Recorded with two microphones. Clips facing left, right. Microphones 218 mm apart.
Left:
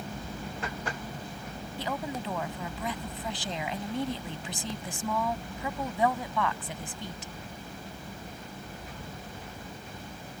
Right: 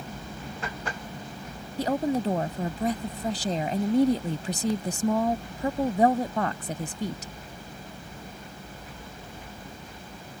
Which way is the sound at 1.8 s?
45° right (ahead or behind).